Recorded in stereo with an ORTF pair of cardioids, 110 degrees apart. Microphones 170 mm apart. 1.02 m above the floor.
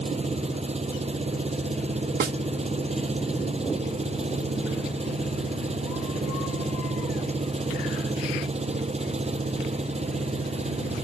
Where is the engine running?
40° right.